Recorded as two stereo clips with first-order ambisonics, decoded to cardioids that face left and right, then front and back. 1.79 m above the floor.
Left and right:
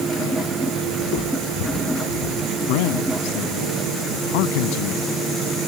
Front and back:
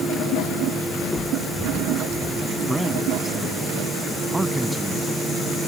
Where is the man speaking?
95° left.